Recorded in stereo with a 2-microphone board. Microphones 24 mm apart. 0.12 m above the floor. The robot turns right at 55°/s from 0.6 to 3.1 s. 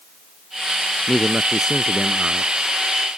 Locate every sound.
1.1 s a man speaking: 160° right; by 2.5 s 85° right